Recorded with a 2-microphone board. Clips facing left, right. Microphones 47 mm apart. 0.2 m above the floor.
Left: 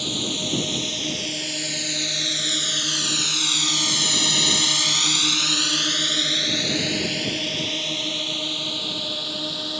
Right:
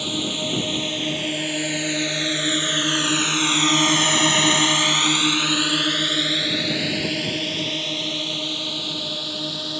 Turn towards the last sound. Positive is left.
turn(degrees=5)  # may be behind; listen again after turning